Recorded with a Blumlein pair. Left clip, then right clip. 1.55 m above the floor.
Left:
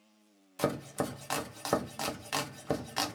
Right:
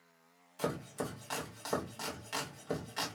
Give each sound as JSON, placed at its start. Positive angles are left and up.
{"t": 0.6, "sound": "chopping", "azimuth_deg": 65, "distance_m": 0.9}